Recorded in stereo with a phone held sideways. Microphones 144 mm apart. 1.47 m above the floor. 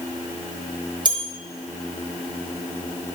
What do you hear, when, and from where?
1.1 s a bell: 35° right (ahead or behind), 1.0 m